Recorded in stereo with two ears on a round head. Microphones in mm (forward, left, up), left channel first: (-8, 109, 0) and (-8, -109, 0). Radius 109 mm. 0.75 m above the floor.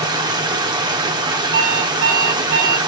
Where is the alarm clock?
50° right (ahead or behind), 2.5 m.